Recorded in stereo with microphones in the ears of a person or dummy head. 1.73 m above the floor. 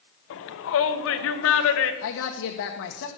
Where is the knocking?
I don't hear knocking.